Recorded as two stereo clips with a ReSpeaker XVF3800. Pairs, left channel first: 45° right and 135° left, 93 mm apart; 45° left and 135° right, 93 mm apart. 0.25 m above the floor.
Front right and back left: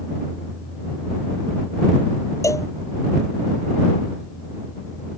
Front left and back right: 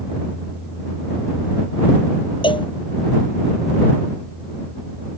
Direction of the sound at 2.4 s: 10° left.